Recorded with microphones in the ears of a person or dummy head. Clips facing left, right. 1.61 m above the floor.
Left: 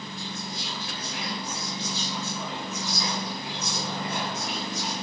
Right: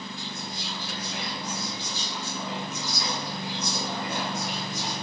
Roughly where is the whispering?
Right.